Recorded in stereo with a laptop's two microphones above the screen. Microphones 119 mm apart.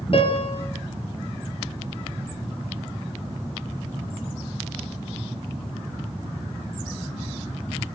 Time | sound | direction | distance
0.1 | a piano | 50° left (ahead or behind) | 4.5 m